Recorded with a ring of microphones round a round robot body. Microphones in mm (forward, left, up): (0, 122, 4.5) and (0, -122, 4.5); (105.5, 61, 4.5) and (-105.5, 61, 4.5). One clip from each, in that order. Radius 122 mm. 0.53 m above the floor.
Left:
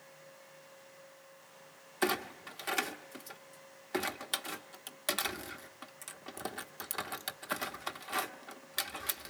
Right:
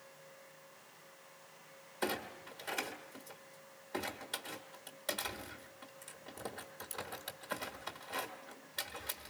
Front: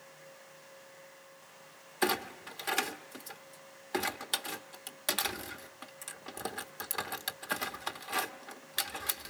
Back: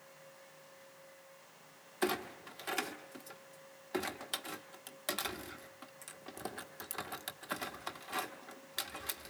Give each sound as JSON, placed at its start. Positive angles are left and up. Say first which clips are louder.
{"t": 2.0, "sound": "a clunk", "louder": "left 5 dB, front 4 dB", "azimuth_deg": 60, "distance_m": 1.0}